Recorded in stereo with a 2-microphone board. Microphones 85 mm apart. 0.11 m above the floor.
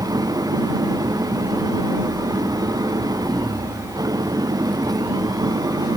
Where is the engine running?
45° right (ahead or behind).